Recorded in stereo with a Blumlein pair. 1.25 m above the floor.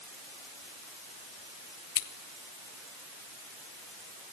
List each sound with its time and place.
1.9 s scissors: 55° left, 1.1 m